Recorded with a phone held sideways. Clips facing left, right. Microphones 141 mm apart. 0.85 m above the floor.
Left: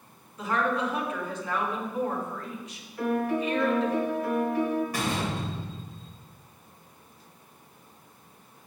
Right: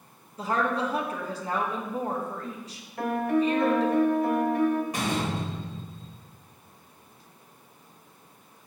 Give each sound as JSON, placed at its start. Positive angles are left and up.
{"t": 0.4, "sound": "a woman speaking", "side_deg": -35, "distance_m": 1.4}
{"t": 3.0, "sound": "a piano", "side_deg": -65, "distance_m": 1.3}
{"t": 4.9, "sound": "a door slam", "side_deg": -20, "distance_m": 3.0}